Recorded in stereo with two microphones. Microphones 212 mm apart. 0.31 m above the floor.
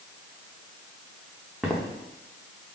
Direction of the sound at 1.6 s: Centre (ahead or behind).